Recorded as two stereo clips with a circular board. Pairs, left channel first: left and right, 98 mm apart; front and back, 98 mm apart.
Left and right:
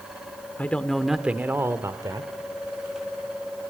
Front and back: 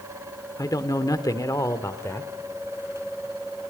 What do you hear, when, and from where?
0.6 s a man speaking: 25° left, 1.2 m; by 2.3 s 55° right, 1.6 m